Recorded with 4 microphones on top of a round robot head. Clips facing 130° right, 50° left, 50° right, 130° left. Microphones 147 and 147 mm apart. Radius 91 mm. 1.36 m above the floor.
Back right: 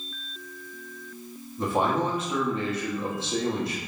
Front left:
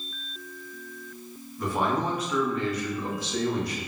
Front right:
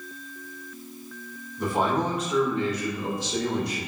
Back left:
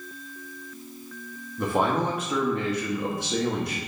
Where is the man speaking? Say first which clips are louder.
Back right 2 dB, even; 165° left, 0.9 m.